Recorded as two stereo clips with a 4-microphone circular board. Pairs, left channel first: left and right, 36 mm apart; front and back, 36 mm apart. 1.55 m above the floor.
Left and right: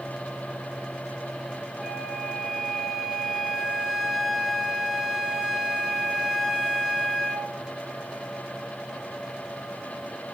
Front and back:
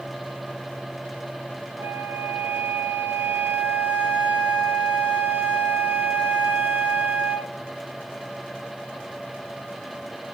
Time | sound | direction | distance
1.8 | a flute | 170° right | 1.0 m